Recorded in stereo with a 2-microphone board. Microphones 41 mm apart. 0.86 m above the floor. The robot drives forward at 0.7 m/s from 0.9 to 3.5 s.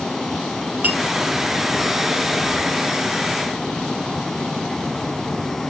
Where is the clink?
40° right (ahead or behind), 1.6 m.